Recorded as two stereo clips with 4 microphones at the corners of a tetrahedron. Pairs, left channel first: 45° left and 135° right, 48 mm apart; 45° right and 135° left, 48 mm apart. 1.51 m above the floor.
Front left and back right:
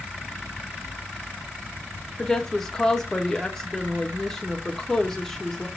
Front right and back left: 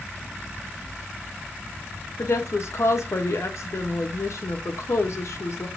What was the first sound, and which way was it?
A woman speaking, 35° right.